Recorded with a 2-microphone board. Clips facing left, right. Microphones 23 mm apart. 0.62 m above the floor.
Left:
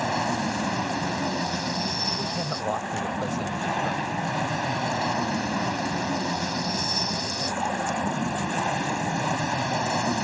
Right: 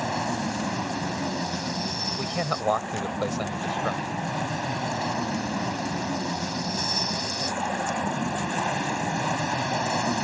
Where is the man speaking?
55° right (ahead or behind).